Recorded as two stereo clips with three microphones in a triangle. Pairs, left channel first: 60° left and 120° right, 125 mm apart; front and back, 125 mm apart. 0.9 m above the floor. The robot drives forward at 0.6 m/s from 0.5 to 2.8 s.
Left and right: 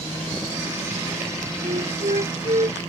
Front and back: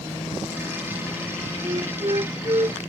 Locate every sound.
1.6 s a flute: 135° right; by 2.8 s 140° right